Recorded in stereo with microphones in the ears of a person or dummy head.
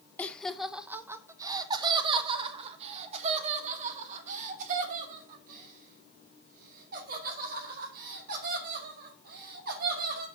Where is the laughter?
10° left (ahead or behind), 0.9 m; by 10.3 s 55° right (ahead or behind), 6 m.